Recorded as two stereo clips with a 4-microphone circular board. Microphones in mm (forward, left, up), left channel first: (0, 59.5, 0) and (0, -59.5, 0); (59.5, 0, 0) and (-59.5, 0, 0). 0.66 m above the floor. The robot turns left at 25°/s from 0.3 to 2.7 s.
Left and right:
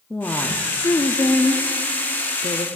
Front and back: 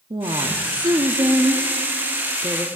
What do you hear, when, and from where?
0.1 s a woman speaking: 160° left, 0.8 m; by 2.6 s 100° left, 0.8 m